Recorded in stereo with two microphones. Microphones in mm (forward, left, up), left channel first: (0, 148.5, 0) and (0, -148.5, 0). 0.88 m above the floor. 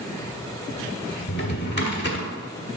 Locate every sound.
1.3 s a drawer: 35° left (ahead or behind), 1.1 m